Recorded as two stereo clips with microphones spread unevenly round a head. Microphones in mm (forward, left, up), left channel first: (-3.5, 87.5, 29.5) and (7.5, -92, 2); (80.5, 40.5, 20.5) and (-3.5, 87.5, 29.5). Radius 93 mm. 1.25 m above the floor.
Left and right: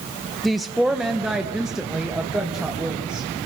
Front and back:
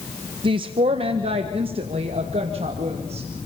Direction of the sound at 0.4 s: 170° right.